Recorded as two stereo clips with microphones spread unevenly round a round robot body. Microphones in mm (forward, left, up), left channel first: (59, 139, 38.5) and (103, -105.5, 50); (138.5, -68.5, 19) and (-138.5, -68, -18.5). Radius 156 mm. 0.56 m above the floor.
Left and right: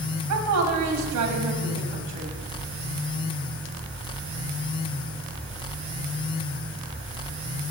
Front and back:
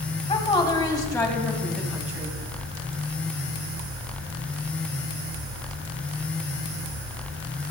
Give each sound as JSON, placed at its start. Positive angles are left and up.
{"t": 0.3, "sound": "a woman speaking", "azimuth_deg": -70, "distance_m": 3.0}